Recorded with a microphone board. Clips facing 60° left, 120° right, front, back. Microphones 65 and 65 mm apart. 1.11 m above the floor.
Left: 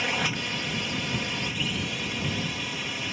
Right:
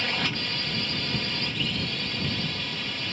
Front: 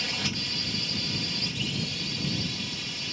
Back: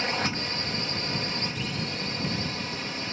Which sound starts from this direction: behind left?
A drone, at 0.0 s.